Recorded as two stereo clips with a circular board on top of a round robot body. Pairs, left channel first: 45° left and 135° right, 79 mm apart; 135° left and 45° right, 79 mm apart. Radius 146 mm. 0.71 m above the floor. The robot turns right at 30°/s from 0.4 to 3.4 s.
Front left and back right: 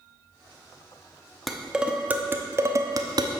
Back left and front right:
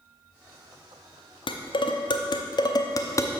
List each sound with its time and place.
1.5 s dishes clattering: 135° left, 0.7 m; by 3.3 s 170° right, 0.7 m